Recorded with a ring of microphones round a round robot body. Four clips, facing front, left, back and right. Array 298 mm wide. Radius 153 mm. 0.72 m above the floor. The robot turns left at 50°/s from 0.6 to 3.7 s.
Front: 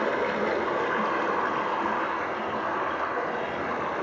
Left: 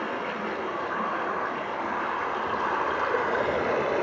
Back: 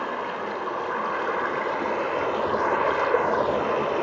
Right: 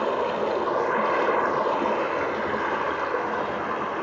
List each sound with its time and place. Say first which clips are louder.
0.0 s running water: right 6 dB, front 3 dB; 60° right, 2.5 m; by 4.0 s 145° left, 2.5 m